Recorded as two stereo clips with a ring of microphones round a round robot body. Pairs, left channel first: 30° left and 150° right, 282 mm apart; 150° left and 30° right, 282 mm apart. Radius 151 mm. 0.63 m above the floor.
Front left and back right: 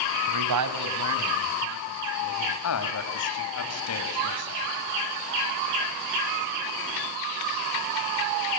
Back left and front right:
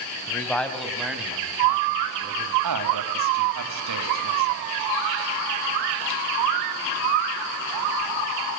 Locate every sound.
0.3 s a man speaking: 130° right, 3.5 m; by 2.5 s 110° right, 6 m
2.6 s a man speaking: 5° right, 5 m